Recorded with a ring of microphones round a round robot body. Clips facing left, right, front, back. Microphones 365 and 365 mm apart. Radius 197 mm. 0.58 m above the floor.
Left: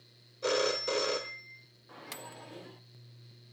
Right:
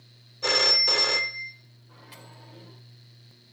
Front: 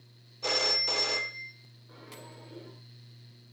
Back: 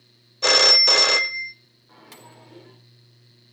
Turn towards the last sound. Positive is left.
turn(degrees=100)